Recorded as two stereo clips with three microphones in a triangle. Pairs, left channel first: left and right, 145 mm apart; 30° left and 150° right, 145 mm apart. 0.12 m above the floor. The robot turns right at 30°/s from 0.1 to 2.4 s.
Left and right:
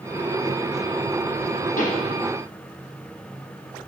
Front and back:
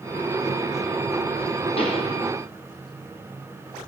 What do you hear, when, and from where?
1.8 s a pop: 75° left, 4.5 m; by 2.1 s 85° left, 4.5 m